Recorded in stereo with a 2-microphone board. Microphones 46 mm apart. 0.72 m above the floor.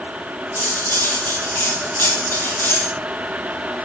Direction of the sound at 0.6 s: 80° left.